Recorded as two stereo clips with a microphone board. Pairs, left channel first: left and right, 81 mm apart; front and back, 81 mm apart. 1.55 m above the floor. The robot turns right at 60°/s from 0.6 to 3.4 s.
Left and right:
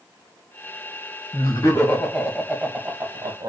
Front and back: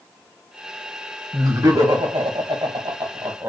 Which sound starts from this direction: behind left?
Laughter, at 1.3 s.